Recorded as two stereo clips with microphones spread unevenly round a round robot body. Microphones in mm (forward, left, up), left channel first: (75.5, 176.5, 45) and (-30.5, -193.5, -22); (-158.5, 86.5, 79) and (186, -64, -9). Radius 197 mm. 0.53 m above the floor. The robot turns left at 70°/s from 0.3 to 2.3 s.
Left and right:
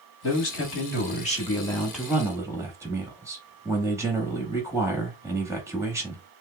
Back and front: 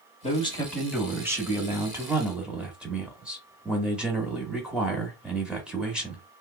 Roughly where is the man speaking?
Left.